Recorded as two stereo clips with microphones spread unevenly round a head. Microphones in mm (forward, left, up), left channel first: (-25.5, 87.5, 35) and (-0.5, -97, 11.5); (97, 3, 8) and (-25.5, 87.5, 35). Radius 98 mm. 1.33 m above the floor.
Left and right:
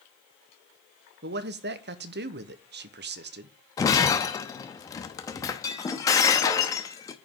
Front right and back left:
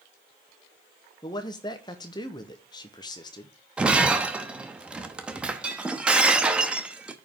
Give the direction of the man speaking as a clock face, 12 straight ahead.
3 o'clock.